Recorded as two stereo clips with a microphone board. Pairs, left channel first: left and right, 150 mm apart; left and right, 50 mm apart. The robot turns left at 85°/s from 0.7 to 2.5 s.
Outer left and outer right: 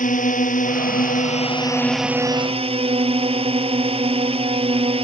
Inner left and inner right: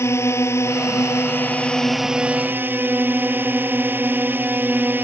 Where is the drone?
110° left; by 5.0 s 45° right.